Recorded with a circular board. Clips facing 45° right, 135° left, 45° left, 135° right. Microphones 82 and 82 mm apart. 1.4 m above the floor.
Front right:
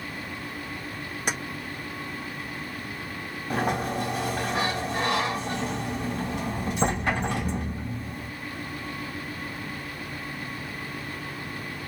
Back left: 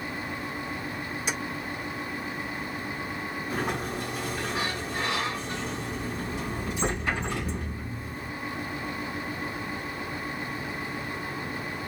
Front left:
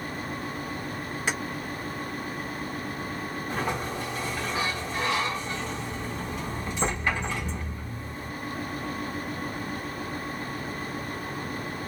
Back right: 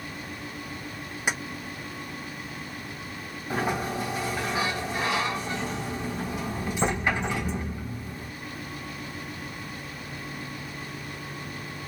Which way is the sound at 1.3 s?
65° right.